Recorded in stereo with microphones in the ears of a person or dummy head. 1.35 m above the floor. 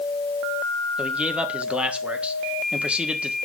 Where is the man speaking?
5° right (ahead or behind), 1.5 m.